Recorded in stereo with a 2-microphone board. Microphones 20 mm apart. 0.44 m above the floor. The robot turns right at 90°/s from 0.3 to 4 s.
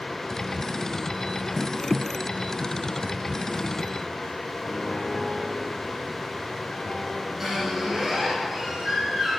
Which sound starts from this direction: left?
A piano, at 4.6 s.